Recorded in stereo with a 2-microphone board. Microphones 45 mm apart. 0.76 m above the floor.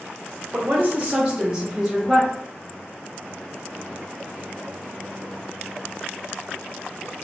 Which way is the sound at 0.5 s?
40° right (ahead or behind).